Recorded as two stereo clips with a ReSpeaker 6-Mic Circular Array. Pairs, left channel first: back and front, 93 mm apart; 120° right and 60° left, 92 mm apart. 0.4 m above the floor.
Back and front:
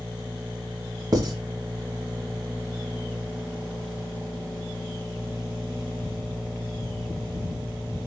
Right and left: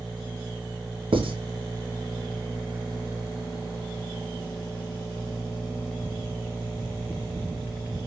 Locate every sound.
1.1 s writing: 45° left, 2.5 m